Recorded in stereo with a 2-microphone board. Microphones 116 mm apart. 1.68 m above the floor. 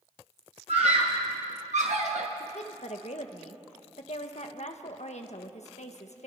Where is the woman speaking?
70° left (ahead or behind), 1.6 m.